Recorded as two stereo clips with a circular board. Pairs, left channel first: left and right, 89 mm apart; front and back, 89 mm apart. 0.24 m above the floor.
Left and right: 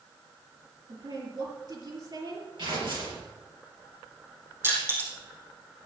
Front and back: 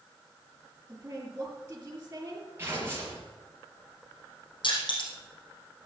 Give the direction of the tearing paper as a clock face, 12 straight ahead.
4 o'clock.